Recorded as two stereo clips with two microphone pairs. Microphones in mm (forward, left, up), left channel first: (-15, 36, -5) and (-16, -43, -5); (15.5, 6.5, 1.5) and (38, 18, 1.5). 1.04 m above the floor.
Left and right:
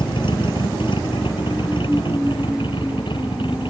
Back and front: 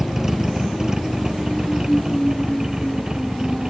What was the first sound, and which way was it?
A vehicle, 100° left.